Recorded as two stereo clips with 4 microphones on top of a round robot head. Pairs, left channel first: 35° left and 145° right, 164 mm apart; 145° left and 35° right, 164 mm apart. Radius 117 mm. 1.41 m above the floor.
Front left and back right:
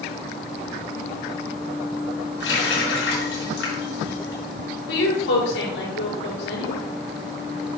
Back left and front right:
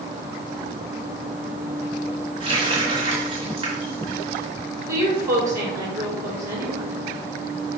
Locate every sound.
2.4 s a running tap: 25° left, 4 m
4.9 s a woman speaking: 35° left, 4 m